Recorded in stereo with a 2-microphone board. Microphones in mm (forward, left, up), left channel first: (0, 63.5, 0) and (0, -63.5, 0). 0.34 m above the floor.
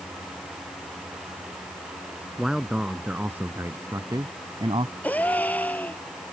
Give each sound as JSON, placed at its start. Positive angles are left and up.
{"t": 2.4, "sound": "a man speaking", "side_deg": -5}
{"t": 5.0, "sound": "a gasp", "side_deg": 15}